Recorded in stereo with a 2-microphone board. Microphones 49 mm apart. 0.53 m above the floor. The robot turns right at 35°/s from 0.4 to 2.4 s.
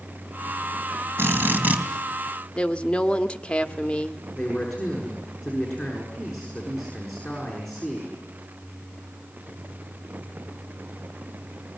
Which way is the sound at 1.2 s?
55° right (ahead or behind).